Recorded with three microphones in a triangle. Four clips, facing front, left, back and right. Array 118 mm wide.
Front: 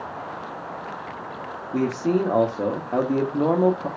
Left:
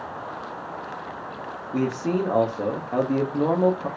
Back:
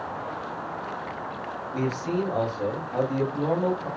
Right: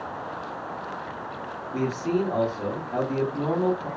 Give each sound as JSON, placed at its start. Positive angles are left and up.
{"t": 1.7, "sound": "a man speaking", "azimuth_deg": 30, "distance_m": 0.8}